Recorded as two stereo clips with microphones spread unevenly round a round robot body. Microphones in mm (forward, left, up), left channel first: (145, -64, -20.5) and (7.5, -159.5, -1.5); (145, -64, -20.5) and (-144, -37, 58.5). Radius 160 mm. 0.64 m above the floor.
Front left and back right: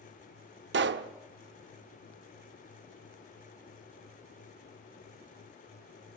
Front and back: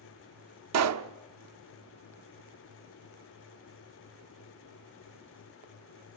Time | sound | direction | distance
0.7 | a pop | 145° right | 1.0 m